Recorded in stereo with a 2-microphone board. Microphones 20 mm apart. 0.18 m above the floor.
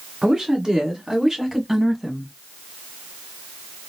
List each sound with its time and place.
0.2 s a woman speaking: 30° right (ahead or behind), 1.7 m; by 2.3 s 10° left (ahead or behind), 1.7 m